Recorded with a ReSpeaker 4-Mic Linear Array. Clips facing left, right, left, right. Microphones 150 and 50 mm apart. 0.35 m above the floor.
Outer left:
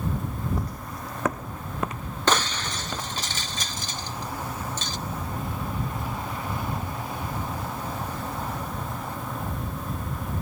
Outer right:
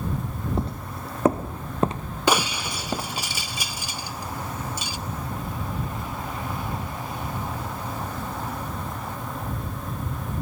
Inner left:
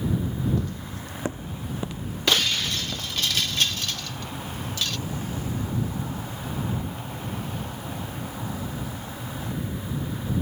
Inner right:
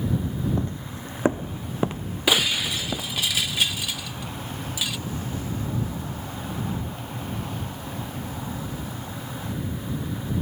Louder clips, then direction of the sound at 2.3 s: Outer right 2 dB, inner right 1 dB; 10° right (ahead or behind).